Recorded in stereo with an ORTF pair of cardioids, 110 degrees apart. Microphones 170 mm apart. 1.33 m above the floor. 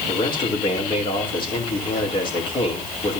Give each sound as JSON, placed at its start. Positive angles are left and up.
{"t": 0.1, "sound": "a man speaking", "azimuth_deg": 30, "distance_m": 4.0}